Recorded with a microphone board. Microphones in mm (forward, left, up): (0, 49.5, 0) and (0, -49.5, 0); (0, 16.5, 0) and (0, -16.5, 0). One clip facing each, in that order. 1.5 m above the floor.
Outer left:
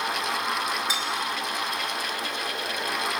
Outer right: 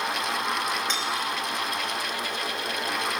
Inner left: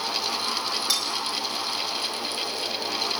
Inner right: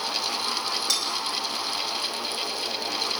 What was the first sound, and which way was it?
Cutlery clinking, 10° left (ahead or behind).